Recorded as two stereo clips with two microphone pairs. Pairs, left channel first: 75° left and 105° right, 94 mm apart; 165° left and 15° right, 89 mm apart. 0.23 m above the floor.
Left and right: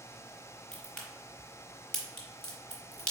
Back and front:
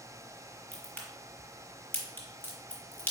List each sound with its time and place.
0.7 s a crack: 150° left, 1.5 m